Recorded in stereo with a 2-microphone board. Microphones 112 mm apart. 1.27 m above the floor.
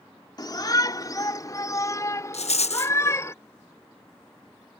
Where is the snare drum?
I don't hear a snare drum.